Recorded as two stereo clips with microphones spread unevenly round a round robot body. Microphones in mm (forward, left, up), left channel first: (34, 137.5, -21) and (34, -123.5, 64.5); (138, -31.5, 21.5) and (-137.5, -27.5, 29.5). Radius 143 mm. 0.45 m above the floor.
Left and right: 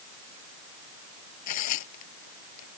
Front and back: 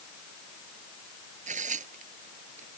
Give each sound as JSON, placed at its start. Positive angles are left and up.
{"t": 1.5, "sound": "tearing paper", "azimuth_deg": 115}